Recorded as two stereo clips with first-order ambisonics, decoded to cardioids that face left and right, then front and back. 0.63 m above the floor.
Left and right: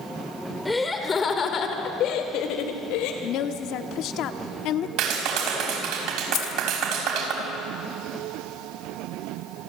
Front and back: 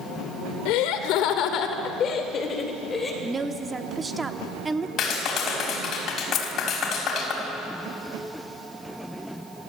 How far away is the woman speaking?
About 1.0 m.